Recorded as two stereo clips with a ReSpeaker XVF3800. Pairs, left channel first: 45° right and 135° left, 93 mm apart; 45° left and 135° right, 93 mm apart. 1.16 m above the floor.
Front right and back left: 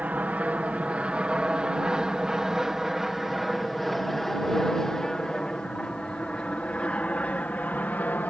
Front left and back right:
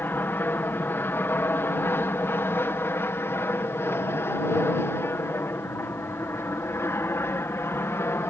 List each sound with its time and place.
0.0 s an aircraft: 80° left; by 8.3 s 10° left